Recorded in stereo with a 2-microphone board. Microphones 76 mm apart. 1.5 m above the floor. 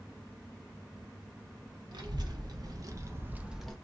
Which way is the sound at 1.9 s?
65° right (ahead or behind).